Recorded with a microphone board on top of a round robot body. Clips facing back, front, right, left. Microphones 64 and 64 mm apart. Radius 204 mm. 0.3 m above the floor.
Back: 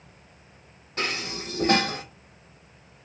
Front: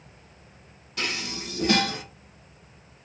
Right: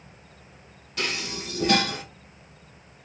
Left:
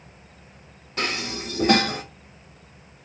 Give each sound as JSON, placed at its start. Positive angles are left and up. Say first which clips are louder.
{"t": 1.0, "sound": "dishes clattering", "louder": "back 1 dB, left 3 dB", "azimuth_deg": 135, "distance_m": 1.0}